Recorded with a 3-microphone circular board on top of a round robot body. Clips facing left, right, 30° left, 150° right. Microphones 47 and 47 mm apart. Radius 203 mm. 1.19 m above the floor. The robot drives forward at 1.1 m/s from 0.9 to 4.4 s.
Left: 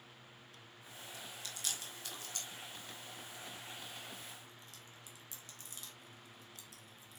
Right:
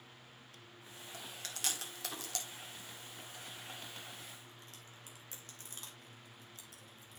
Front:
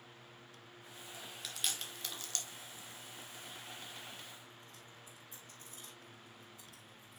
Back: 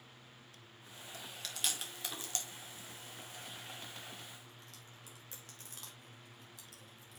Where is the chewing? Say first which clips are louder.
Right 2 dB, back 1 dB; 50° right, 2.5 m; by 7.2 s 140° right, 2.5 m.